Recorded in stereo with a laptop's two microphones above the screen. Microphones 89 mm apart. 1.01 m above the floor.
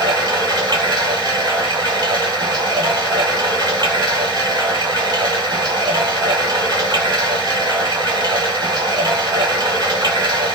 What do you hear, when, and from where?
0.0 s running water: 55° right (ahead or behind), 1.2 m